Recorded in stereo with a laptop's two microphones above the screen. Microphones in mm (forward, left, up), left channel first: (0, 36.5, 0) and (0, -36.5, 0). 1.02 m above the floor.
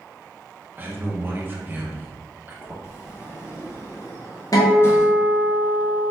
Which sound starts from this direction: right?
A man speaking, at 0.8 s.